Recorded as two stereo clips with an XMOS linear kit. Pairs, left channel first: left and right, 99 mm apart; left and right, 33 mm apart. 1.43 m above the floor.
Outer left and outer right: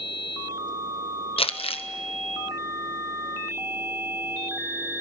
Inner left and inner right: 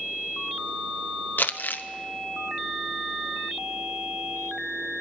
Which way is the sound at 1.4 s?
70° left (ahead or behind).